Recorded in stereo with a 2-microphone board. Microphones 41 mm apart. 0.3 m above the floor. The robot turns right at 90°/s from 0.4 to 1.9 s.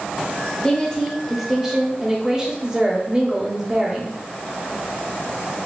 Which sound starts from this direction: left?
A woman speaking, at 0.6 s.